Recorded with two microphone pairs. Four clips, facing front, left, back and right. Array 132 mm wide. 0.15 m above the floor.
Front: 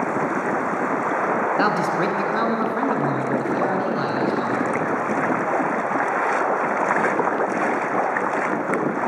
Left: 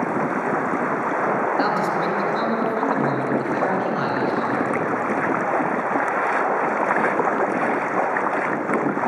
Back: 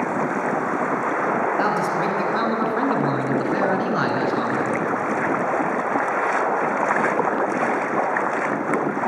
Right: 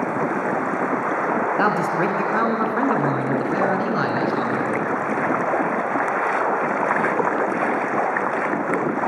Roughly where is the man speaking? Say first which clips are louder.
Right 1 dB, front 1 dB; ahead right.